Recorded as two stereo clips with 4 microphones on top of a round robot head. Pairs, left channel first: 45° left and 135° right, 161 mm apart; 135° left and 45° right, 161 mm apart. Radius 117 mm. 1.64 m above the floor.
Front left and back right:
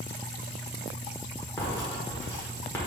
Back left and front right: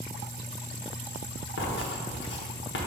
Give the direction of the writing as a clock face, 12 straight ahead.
8 o'clock.